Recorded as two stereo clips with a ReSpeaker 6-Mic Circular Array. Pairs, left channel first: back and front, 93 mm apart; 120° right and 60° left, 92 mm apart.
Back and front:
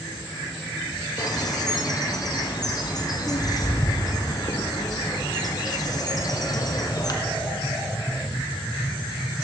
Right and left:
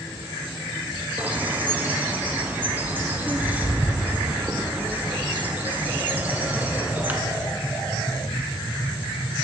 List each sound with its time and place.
1.2 s a bird: 135° left, 1.0 m